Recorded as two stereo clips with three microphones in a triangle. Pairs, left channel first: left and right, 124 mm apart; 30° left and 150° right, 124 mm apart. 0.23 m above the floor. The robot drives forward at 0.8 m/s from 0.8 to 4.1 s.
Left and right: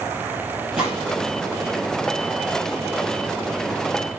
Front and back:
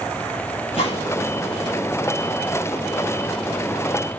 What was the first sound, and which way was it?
A gunshot, 5° right.